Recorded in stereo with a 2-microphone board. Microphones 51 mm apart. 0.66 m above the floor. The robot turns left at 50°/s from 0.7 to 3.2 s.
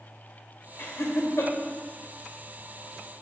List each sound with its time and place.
0.8 s laughter: 55° left (ahead or behind), 2 m; by 1.5 s 75° left (ahead or behind), 2 m